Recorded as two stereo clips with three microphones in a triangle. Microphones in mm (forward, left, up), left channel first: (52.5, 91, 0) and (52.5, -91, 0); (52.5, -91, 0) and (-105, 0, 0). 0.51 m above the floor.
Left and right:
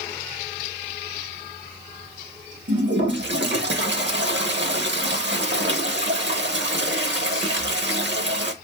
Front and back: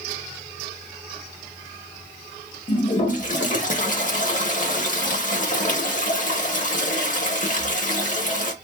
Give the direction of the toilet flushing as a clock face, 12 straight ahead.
3 o'clock.